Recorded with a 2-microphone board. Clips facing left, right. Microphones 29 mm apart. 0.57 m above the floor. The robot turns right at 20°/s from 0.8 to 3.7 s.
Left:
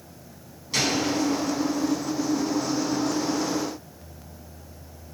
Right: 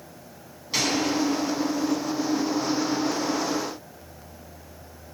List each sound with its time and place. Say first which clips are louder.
0.7 s a gunshot: even; 10° right (ahead or behind), 5.5 m; by 1.0 s 15° right (ahead or behind), 5.5 m